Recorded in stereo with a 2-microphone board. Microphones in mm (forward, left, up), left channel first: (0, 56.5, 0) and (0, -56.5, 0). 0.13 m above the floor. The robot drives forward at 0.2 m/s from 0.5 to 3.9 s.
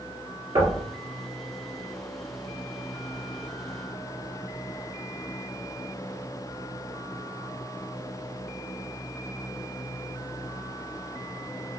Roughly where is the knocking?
Right.